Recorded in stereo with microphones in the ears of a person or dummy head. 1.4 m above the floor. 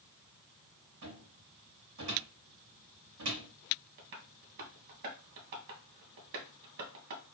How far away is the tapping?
About 1.2 m.